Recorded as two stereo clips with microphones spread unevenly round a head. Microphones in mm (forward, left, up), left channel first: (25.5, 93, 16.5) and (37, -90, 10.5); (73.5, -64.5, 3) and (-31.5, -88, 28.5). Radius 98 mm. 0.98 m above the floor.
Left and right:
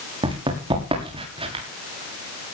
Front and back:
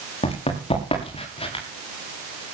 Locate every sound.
0.2 s running footsteps: 20° right, 7 m; by 1.6 s 25° right, 7.5 m